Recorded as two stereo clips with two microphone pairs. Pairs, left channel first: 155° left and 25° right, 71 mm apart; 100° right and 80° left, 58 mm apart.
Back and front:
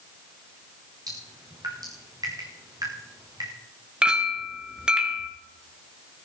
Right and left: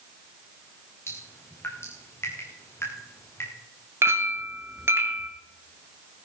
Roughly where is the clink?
Ahead left.